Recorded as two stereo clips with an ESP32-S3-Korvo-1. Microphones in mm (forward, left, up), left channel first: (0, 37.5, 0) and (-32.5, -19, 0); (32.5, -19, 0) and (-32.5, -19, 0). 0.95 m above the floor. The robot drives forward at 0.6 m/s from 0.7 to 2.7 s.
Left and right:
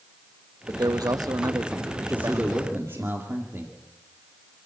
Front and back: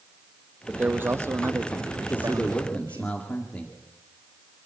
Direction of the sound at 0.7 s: 110° right.